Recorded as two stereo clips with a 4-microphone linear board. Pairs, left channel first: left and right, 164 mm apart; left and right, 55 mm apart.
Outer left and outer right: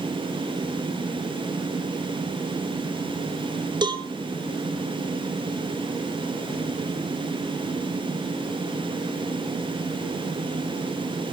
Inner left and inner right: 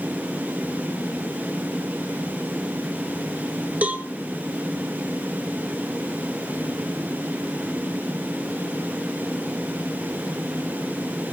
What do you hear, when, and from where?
3.8 s a cowbell: 25° right (ahead or behind), 2 m